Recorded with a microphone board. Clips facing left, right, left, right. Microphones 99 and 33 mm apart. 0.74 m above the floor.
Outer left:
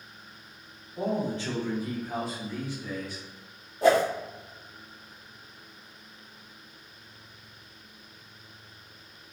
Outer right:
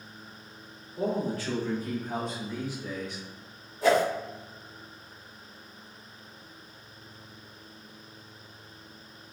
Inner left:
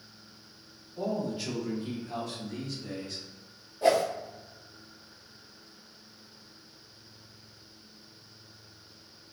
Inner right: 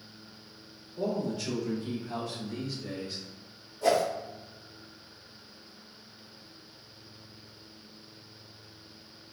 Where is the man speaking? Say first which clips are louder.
Even, inner right 1 dB; 30° left (ahead or behind), 1.3 m; by 3.2 s 25° right (ahead or behind), 1.0 m.